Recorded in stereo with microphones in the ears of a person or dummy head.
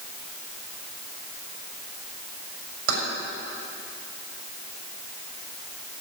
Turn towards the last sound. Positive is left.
turn(degrees=-85)